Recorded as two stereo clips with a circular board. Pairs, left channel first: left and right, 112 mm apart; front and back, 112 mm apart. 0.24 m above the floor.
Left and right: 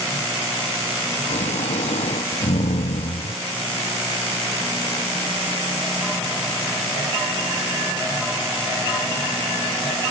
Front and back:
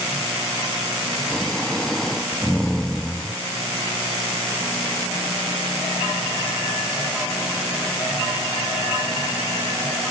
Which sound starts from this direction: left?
Snoring, at 1.3 s.